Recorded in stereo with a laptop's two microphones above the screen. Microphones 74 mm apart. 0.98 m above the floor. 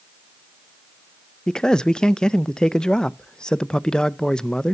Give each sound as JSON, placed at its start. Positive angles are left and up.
{"t": 1.5, "sound": "a man speaking", "side_deg": 10, "distance_m": 0.6}